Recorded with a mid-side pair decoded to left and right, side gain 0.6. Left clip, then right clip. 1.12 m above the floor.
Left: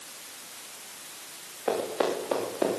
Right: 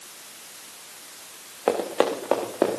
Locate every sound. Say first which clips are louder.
1.7 s running footsteps: right 5 dB; 55° right, 4.5 m; by 2.8 s 50° right, 5 m